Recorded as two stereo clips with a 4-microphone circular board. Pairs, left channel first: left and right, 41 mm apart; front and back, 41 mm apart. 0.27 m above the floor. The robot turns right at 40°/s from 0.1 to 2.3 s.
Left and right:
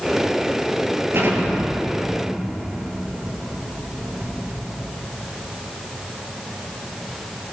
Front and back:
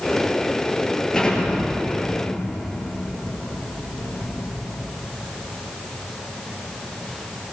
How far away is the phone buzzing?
I don't hear a phone buzzing.